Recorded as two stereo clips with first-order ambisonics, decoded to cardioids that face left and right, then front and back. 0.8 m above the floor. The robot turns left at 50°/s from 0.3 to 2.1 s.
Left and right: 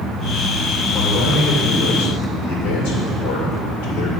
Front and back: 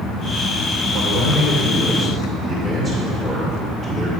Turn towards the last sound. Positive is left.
turn(degrees=90)